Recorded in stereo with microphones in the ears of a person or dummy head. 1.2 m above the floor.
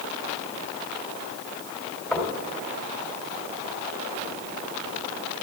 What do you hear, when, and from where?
2.1 s knocking: centre (ahead or behind), 3 m